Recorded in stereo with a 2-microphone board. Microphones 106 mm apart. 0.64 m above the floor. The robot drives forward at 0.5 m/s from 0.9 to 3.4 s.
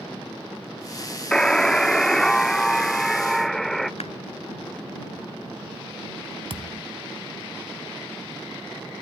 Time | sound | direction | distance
1.3 | a buzzer | 10° left (ahead or behind) | ?
4.0 | a clap | 85° left | ?
6.5 | a thud | 70° right (ahead or behind) | ?